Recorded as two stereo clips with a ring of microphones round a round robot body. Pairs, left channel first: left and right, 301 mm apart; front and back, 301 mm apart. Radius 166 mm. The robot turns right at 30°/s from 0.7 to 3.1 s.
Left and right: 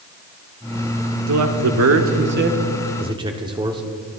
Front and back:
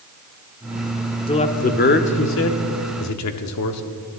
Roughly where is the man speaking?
Right.